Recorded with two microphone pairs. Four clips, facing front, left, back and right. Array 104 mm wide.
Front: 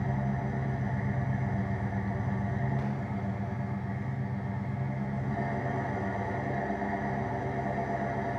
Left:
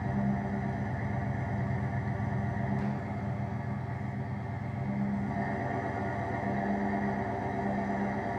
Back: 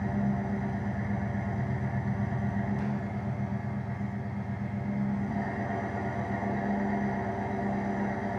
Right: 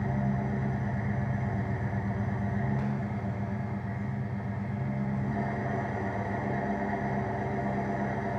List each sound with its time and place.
0.0 s an engine running: 70° right, 3.5 m